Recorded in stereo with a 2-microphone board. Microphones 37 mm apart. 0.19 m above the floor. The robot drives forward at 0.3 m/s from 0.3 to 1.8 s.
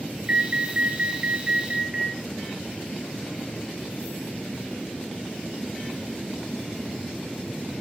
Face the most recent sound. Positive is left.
turn(degrees=-35)  # may be behind; listen again after turning